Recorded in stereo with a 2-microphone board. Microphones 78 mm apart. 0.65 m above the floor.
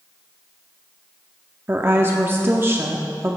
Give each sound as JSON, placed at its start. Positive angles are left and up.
{"t": 1.7, "sound": "a woman speaking", "side_deg": -30, "distance_m": 0.8}